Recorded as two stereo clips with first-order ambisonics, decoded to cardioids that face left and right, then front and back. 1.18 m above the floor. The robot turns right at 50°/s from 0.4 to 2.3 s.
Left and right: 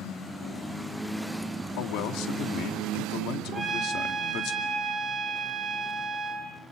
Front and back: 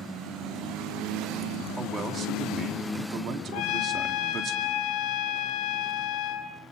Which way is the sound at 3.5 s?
15° right.